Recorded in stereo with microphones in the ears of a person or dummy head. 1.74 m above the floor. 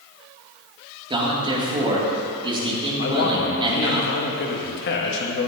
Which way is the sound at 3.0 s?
60° left (ahead or behind).